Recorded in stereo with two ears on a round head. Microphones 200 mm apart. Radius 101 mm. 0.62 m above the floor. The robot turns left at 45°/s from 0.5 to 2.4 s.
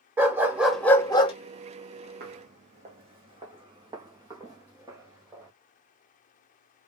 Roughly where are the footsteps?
Right.